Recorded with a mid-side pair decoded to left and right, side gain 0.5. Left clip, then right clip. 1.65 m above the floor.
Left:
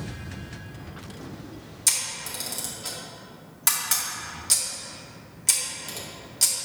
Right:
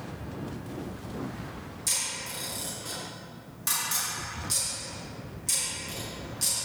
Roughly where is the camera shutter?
Ahead left.